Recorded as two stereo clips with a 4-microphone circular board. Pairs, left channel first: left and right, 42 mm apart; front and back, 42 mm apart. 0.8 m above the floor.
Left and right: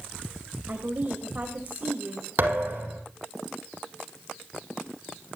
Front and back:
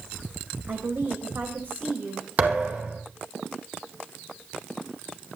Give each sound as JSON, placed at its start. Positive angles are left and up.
{"t": 0.7, "sound": "a woman speaking", "azimuth_deg": -145, "distance_m": 4.0}
{"t": 2.4, "sound": "a thud", "azimuth_deg": -130, "distance_m": 7.5}